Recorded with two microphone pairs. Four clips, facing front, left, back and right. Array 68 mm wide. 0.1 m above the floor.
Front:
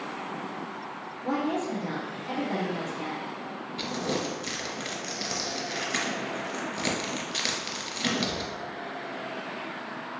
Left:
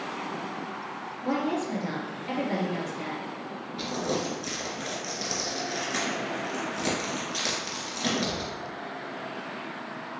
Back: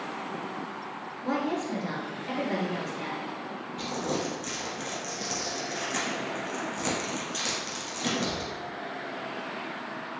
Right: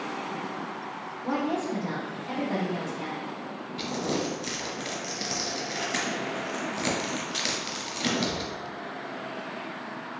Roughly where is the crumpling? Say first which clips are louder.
Even, even; ahead.